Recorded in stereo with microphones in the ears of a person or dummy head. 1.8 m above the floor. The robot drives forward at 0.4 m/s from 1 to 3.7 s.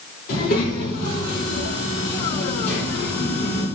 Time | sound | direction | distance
0.3 | a child speaking | 55° left (ahead or behind) | 4 m